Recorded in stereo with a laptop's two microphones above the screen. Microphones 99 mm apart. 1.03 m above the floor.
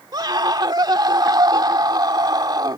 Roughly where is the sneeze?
I don't hear a sneeze.